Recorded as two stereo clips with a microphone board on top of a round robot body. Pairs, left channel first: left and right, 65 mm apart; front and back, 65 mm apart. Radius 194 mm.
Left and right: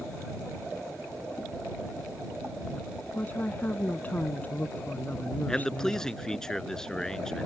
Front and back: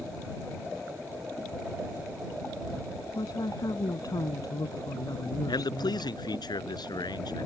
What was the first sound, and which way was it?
A woman speaking, 25° left.